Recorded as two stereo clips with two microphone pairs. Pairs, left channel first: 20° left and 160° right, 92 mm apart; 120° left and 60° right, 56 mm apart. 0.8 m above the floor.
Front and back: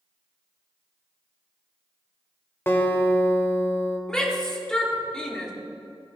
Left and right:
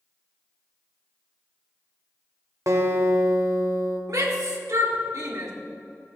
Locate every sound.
2.7 s a guitar: 45° right, 1.4 m
4.1 s a shout: 60° right, 1.8 m